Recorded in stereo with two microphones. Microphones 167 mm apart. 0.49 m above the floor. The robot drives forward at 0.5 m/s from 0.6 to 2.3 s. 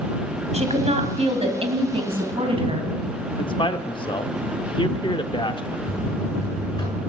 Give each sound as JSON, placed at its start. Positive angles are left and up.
{"t": 0.5, "sound": "a woman speaking", "side_deg": -40, "distance_m": 2.5}
{"t": 3.4, "sound": "a man speaking", "side_deg": 30, "distance_m": 0.8}
{"t": 5.8, "sound": "a buzzer", "side_deg": 25, "distance_m": 7.0}